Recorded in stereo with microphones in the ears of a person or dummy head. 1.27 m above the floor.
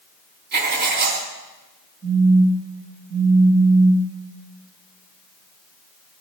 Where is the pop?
No pop in this recording.